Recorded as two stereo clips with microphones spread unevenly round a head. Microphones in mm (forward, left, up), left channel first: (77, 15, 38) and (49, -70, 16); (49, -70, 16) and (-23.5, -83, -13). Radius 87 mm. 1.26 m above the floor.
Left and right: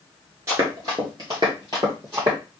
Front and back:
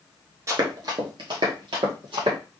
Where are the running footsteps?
165° right, 1.2 m; by 2.4 s 175° right, 2.5 m.